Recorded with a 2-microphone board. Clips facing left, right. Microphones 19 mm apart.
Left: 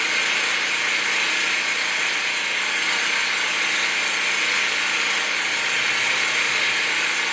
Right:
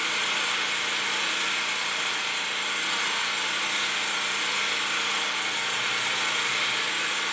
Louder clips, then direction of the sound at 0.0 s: Left 5 dB; 45° left (ahead or behind).